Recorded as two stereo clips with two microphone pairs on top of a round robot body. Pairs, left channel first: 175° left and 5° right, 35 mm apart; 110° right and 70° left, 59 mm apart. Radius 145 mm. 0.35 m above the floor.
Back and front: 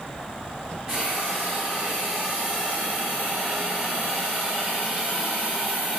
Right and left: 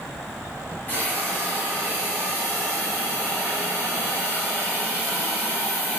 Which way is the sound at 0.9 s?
65° right.